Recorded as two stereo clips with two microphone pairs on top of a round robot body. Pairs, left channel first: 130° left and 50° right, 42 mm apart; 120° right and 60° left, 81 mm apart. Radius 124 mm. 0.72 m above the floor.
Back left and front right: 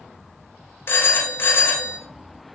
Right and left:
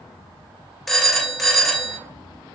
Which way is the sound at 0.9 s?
145° left.